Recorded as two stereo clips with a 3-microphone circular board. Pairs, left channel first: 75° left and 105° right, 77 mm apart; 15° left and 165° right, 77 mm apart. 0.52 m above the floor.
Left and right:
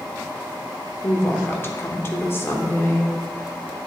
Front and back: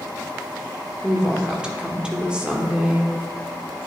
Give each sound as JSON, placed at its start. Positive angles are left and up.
{"t": 1.0, "sound": "a woman speaking", "azimuth_deg": 120, "distance_m": 1.1}